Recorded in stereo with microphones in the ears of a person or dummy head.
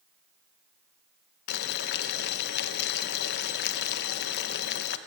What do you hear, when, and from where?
1.5 s boiling: 65° left (ahead or behind), 1.1 m